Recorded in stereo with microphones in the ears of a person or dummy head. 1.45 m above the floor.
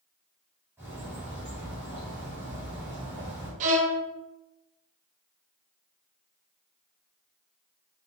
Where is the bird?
5° right (ahead or behind), 1.4 m.